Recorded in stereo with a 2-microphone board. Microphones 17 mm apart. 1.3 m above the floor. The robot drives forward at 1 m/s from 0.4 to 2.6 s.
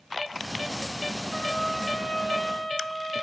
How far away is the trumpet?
About 2 m.